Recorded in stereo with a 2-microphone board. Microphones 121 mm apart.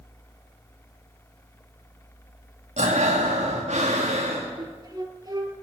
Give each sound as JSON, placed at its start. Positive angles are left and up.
{"t": 2.8, "sound": "breathing", "side_deg": -85, "distance_m": 3.0}
{"t": 4.6, "sound": "a flute", "side_deg": -40, "distance_m": 1.5}